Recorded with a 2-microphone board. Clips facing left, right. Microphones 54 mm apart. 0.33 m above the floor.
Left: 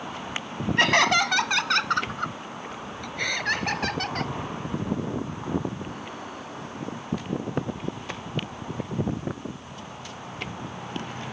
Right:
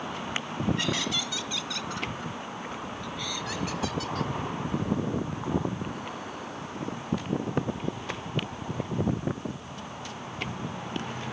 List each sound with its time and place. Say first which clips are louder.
0.8 s laughter: left 10 dB; 60° left (ahead or behind); by 4.3 s 55° left (ahead or behind)